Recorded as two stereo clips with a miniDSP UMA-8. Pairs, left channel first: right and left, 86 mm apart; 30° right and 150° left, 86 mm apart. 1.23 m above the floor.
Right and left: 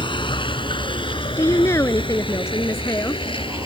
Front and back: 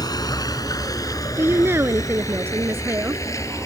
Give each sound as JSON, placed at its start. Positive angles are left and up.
{"t": 0.0, "sound": "a vehicle", "azimuth_deg": -70}
{"t": 1.4, "sound": "a woman speaking", "azimuth_deg": -145}